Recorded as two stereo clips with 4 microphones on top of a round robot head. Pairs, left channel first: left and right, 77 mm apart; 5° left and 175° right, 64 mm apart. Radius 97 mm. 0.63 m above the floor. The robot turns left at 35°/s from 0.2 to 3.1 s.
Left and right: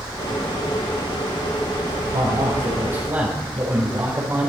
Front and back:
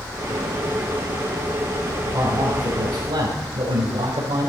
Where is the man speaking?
120° right, 4 m; by 4.5 s 150° right, 4 m.